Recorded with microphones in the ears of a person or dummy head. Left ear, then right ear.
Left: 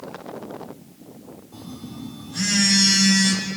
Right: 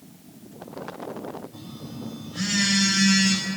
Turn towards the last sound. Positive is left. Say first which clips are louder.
# left 1 dB
turn(degrees=60)  # may be behind; listen again after turning